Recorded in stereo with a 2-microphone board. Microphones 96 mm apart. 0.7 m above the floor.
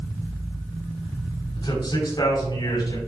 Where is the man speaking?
55° left (ahead or behind), 4 m; by 3.0 s 45° left (ahead or behind), 5.5 m.